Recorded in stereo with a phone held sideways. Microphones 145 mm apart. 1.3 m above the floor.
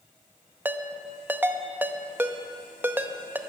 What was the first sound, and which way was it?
A ringtone, 15° right (ahead or behind).